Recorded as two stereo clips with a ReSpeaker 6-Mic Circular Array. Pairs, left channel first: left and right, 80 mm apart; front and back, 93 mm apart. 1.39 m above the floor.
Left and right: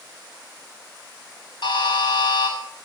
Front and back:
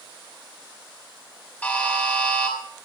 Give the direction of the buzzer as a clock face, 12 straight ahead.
10 o'clock.